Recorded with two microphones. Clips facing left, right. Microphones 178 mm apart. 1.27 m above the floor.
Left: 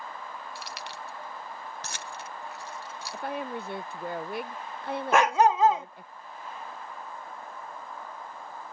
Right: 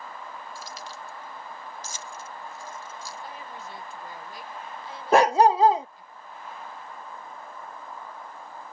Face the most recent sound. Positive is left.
turn(degrees=-30)  # may be behind; listen again after turning